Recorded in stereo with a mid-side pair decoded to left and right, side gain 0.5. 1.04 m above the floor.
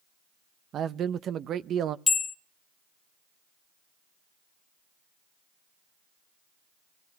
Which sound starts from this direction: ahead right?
A man speaking, at 0.7 s.